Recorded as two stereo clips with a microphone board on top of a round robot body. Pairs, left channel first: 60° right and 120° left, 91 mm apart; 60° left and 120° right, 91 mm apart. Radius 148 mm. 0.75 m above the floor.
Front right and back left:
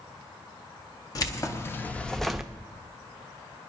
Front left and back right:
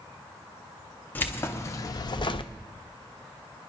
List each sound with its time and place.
1.1 s keys jangling: 10° right, 1.1 m; by 2.5 s 40° left, 0.8 m